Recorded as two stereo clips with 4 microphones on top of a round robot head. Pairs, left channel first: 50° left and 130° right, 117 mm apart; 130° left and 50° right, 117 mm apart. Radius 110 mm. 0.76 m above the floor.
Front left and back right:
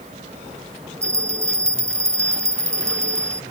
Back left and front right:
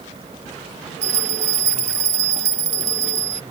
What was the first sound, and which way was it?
A bell, 65° right.